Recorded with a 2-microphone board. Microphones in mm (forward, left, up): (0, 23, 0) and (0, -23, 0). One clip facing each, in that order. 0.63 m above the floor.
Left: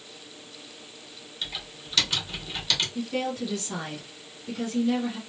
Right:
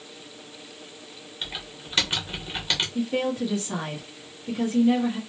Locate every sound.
1.4 s typing on a keyboard: 25° right (ahead or behind), 1.4 m
3.0 s a woman speaking: 25° right (ahead or behind), 1.2 m